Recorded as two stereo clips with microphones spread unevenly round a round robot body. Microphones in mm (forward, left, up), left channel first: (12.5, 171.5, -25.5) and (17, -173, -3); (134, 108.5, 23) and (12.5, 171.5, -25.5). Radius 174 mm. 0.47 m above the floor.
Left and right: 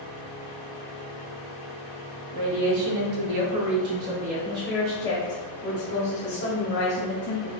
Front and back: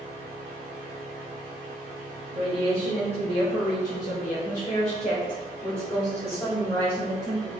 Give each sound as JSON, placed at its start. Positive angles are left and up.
{"t": 2.3, "sound": "a woman speaking", "azimuth_deg": -110, "distance_m": 2.0}